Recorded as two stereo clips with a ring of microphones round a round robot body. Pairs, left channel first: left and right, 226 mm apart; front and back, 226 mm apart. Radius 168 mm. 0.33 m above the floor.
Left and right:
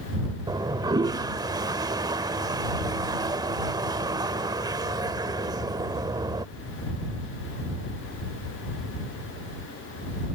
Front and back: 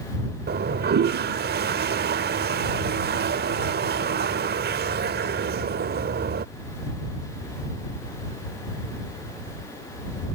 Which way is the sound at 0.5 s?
160° right.